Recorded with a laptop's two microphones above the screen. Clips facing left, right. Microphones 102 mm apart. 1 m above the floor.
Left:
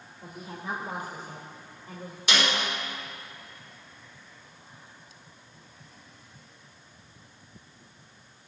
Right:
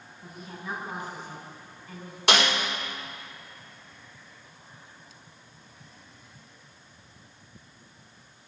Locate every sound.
0.2 s a woman speaking: 50° left (ahead or behind), 3 m
2.3 s a snare drum: 75° right (ahead or behind), 4 m